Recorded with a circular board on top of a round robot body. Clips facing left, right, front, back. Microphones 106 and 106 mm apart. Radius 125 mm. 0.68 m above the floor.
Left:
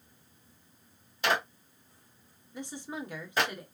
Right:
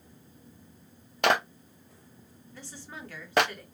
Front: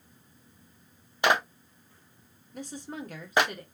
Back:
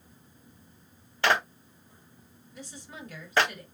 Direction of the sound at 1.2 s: 75° right.